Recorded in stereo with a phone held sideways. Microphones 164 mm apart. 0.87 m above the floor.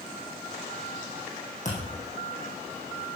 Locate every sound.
1.6 s a thud: 50° left (ahead or behind), 5 m